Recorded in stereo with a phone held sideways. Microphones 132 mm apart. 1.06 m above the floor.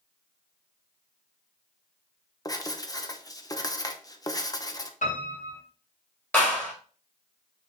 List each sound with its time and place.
2.5 s writing: 25° left (ahead or behind), 0.8 m
5.0 s a piano: 75° left (ahead or behind), 4 m
6.3 s a clap: 15° left (ahead or behind), 5 m